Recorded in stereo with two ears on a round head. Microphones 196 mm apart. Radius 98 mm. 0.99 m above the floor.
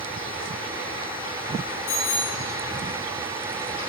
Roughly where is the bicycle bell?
Left.